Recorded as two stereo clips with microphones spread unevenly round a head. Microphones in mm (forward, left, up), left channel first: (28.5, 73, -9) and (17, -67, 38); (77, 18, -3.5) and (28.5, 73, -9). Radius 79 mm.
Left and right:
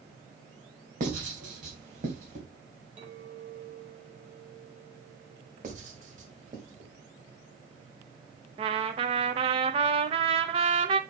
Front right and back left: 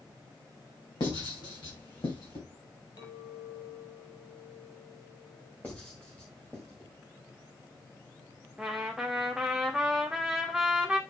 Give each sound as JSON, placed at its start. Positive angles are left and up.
{"t": 1.0, "sound": "writing", "azimuth_deg": -70, "distance_m": 3.0}
{"t": 3.0, "sound": "a clink", "azimuth_deg": -40, "distance_m": 3.5}
{"t": 5.6, "sound": "writing", "azimuth_deg": -125, "distance_m": 1.9}
{"t": 8.6, "sound": "a trumpet", "azimuth_deg": -145, "distance_m": 0.6}